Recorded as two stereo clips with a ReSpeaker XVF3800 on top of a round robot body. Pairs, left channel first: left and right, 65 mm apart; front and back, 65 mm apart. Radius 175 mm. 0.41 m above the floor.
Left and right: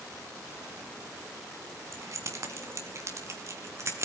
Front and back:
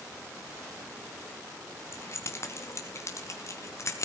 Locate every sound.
1.9 s keys jangling: 50° right, 3 m; by 4.0 s 45° right, 4.5 m